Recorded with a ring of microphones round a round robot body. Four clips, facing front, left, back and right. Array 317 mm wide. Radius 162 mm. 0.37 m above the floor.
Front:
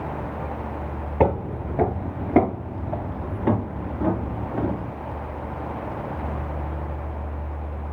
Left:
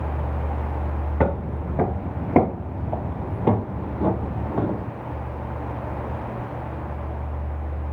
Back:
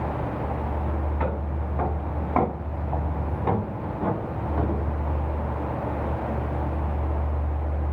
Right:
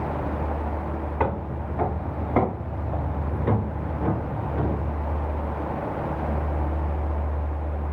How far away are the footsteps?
About 1.1 m.